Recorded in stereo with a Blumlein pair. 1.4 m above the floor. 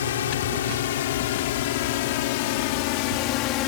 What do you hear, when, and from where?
0.0 s a drone: 60° left; by 3.7 s 40° left